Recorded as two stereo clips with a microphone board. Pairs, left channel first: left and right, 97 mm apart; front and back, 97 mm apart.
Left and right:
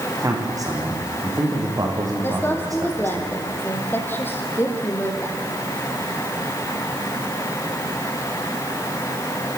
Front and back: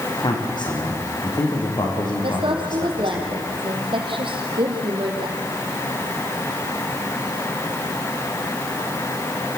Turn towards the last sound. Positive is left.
turn(degrees=155)